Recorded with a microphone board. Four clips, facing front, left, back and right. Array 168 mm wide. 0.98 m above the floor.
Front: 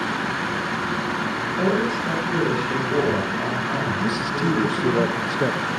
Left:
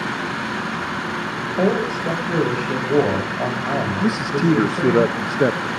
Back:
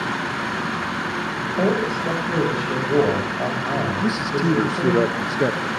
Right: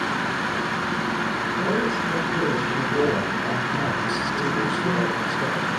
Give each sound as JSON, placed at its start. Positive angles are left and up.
{"t": 1.6, "sound": "a man speaking", "azimuth_deg": 120, "distance_m": 7.0}
{"t": 4.0, "sound": "a man speaking", "azimuth_deg": 105, "distance_m": 0.8}